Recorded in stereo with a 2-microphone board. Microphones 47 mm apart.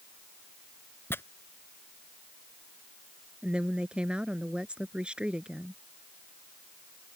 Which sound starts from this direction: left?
Tearing paper, at 1.1 s.